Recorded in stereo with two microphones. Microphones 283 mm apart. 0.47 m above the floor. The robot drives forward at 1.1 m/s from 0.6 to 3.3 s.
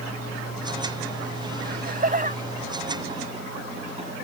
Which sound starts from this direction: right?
Laughter, at 1.6 s.